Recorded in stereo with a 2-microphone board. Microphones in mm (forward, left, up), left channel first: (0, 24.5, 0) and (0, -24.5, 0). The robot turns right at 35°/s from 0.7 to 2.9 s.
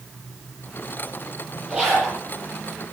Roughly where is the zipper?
Centre.